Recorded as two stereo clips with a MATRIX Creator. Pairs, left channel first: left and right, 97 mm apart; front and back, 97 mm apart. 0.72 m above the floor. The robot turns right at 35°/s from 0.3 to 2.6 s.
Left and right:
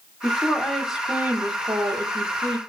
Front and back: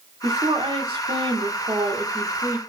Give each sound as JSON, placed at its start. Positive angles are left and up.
{"t": 0.2, "sound": "a woman speaking", "azimuth_deg": 165, "distance_m": 1.7}